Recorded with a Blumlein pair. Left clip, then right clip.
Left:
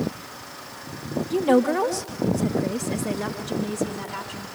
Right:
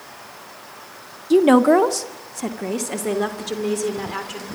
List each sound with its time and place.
1.3 s a woman speaking: 55° right, 1.1 m; by 4.5 s 60° right, 4 m